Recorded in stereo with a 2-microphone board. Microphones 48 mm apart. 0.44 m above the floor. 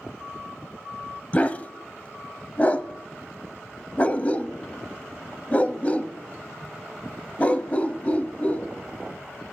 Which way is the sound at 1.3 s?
25° left (ahead or behind).